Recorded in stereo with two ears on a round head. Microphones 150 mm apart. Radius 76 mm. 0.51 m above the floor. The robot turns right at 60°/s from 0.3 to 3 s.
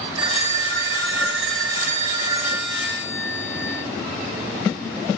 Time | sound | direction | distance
0.2 | a phone ringing | 145° right | 1.2 m